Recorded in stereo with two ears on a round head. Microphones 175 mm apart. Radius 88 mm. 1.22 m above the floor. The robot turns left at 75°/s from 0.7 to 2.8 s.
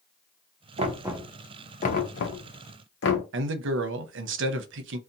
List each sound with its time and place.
0.8 s knocking: 35° right (ahead or behind), 0.7 m; by 3.2 s 60° left (ahead or behind), 0.7 m
3.3 s a man speaking: 70° right (ahead or behind), 0.6 m